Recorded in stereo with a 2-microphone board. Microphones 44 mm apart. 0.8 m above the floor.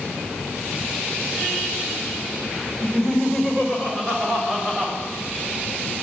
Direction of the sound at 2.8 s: 15° left (ahead or behind).